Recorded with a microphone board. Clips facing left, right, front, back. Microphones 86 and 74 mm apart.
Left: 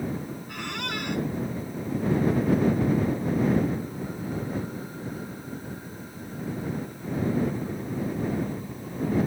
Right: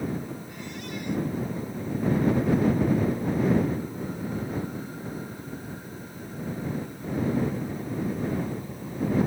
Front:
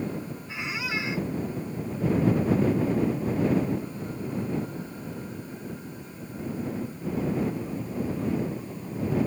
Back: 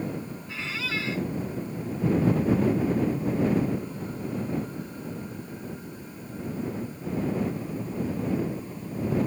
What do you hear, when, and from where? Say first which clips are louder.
0.5 s a squeak: left 3 dB, front 1 dB; 75° left